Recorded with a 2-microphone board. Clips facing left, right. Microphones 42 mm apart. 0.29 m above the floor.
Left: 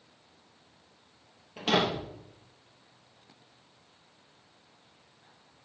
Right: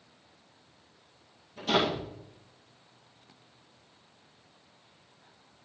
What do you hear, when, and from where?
1.6 s a door slam: 85° left, 6 m